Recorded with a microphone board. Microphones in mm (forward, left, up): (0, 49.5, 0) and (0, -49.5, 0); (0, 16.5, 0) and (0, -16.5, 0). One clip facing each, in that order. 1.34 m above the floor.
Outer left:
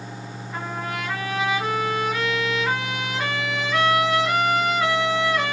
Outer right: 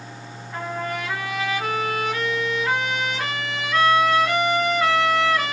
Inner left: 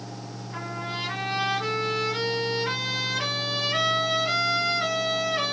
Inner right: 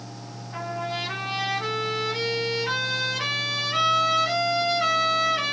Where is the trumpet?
Centre (ahead or behind), 2 m.